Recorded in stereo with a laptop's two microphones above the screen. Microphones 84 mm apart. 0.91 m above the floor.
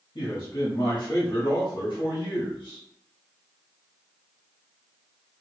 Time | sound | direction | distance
0.1 | a man speaking | 60° left (ahead or behind) | 1.7 m